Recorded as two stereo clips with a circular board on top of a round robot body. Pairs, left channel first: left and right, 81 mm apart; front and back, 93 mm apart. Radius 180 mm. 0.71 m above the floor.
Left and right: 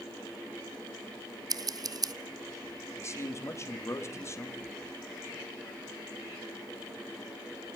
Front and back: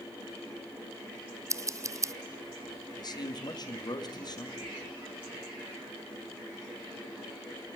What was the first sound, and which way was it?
Scissors, 125° right.